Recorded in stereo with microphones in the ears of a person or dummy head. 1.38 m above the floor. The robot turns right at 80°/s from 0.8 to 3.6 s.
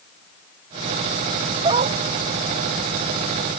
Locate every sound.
1.6 s a dog barking: 25° right (ahead or behind); by 2.0 s 50° right (ahead or behind)